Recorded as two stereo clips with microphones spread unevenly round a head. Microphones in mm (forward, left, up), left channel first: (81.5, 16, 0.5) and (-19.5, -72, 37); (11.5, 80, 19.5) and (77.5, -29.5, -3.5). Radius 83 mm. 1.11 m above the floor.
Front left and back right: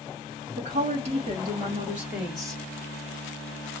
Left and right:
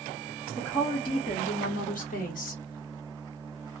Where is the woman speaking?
150° right, 0.9 m; by 2.6 s 115° left, 1.4 m.